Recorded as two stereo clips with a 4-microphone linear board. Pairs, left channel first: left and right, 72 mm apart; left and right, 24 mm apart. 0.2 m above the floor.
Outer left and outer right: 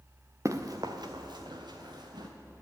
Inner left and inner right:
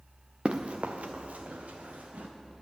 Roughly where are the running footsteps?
Right.